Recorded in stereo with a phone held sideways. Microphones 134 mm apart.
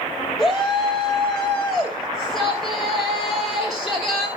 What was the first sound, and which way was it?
A shout, centre (ahead or behind).